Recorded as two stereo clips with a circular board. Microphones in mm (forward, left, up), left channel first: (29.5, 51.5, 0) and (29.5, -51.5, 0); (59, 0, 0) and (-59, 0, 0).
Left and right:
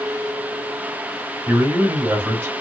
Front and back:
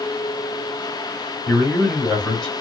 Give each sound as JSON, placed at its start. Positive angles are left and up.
{"t": 1.5, "sound": "a man speaking", "azimuth_deg": -80, "distance_m": 1.2}